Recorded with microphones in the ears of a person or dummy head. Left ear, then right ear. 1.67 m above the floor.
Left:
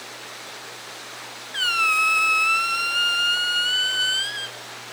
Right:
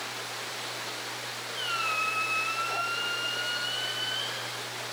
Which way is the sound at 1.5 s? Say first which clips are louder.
Left 10 dB; 40° left (ahead or behind).